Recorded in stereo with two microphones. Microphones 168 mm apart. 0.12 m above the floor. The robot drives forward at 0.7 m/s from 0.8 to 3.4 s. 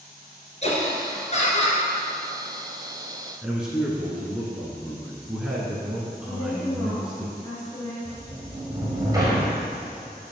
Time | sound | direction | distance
0.6 | laughter | 40° left (ahead or behind) | 2.5 m
3.4 | a man speaking | 5° right (ahead or behind) | 1.1 m
6.3 | a woman speaking | 25° left (ahead or behind) | 1.8 m
8.1 | a sliding door | 20° right (ahead or behind) | 1.8 m